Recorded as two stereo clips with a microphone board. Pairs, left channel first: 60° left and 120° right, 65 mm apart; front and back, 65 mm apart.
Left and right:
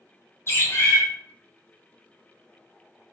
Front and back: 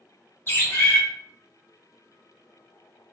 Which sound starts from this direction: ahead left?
A bird, at 0.5 s.